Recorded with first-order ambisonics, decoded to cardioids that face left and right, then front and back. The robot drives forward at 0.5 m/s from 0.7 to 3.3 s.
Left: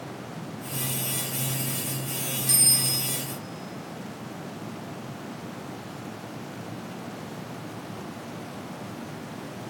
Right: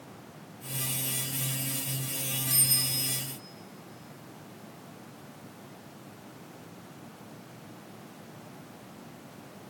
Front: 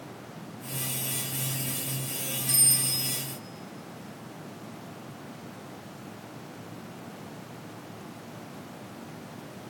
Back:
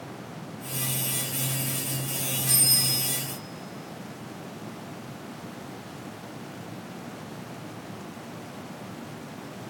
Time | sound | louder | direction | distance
2.5 | a bicycle bell | left 5 dB, back 3 dB | 90° left | 4 m